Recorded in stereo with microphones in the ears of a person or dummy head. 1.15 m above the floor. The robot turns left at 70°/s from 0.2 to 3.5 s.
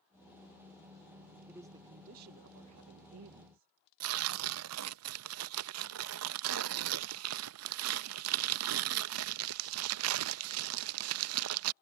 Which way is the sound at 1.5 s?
10° right.